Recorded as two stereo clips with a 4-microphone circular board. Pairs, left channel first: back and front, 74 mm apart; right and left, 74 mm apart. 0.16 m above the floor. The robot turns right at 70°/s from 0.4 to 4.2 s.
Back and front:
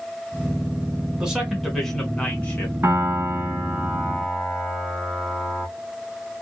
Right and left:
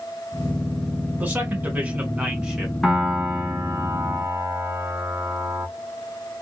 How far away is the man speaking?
About 1.1 m.